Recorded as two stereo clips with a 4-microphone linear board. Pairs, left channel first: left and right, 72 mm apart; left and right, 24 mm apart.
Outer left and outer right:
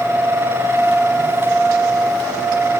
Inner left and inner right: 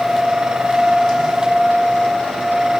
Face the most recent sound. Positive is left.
No sound to turn to.